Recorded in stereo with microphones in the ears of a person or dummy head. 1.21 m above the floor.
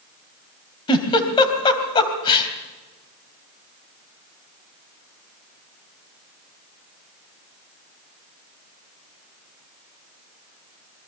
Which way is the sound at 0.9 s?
25° left (ahead or behind).